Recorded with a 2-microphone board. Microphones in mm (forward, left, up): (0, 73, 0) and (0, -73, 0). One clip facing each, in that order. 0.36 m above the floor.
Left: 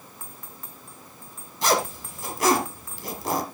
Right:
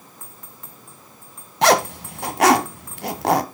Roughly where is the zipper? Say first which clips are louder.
Right 7 dB; right.